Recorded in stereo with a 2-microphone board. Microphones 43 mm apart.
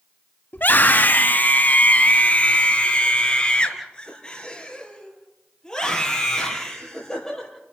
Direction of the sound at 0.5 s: 55° left (ahead or behind).